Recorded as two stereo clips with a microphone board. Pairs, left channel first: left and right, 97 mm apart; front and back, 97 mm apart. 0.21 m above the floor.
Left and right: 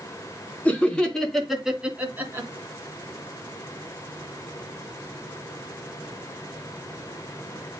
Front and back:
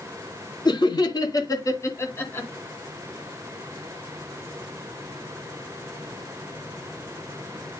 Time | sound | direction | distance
0.7 | laughter | 20° left | 2.5 m